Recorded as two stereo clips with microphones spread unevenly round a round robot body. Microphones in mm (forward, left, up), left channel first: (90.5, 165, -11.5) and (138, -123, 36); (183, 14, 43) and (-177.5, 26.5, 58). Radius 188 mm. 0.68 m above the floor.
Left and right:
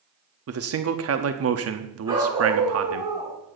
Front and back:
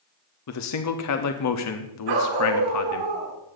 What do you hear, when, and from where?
0.5 s a man speaking: 40° right, 1.0 m
2.1 s a dog barking: 160° right, 3 m